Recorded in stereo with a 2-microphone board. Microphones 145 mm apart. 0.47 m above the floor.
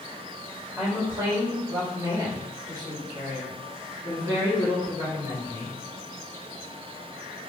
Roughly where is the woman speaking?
Centre.